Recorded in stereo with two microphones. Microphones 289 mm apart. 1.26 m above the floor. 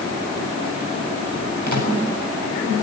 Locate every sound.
1.7 s a microwave: 85° right, 7.5 m